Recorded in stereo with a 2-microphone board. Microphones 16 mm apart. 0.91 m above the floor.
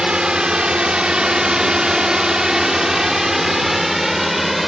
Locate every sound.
0.0 s a drone: 70° right (ahead or behind); by 4.7 s 5° right (ahead or behind)